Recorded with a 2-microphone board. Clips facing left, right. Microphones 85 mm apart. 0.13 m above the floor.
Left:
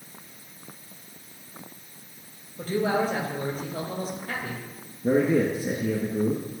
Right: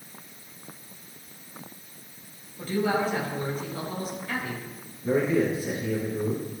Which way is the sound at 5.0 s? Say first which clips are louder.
Left 2 dB; 50° left (ahead or behind).